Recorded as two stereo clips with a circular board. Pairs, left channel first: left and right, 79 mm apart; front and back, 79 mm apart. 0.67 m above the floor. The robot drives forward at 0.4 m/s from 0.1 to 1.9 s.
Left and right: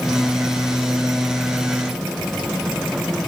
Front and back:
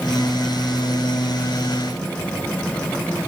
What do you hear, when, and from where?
Only background noise.